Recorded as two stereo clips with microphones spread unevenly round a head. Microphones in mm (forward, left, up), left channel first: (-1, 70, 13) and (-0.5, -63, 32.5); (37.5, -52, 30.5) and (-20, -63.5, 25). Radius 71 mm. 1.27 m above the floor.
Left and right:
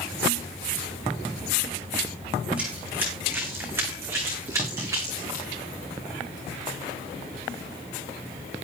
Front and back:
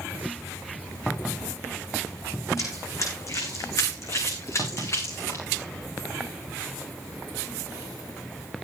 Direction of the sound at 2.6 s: 10° right.